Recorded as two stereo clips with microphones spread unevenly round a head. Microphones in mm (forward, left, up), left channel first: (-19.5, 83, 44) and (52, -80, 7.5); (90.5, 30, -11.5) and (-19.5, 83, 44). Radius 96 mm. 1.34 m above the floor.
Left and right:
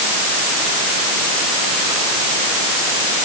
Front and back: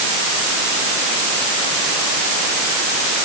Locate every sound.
Only background noise.